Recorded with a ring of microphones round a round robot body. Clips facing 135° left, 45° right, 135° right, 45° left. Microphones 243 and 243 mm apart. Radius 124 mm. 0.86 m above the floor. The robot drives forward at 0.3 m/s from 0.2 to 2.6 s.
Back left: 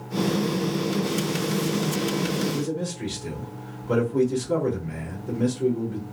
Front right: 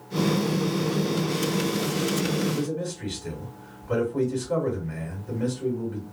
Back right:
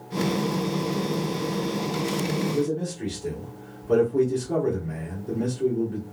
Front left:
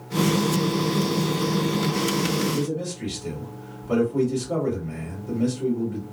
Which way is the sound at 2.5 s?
125° left.